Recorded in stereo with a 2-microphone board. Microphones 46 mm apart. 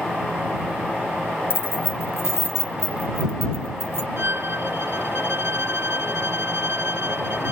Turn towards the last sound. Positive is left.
turn(degrees=-65)  # may be behind; listen again after turning